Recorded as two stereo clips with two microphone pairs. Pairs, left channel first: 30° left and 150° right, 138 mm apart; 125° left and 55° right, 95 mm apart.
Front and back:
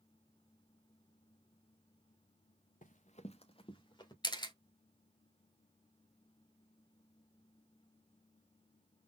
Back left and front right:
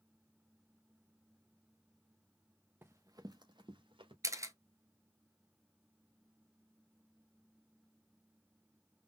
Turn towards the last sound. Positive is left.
turn(degrees=-15)